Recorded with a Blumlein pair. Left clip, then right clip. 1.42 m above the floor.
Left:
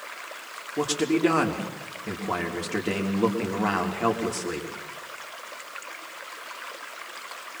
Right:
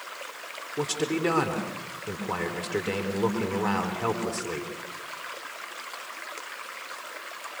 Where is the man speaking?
55° left, 4 m.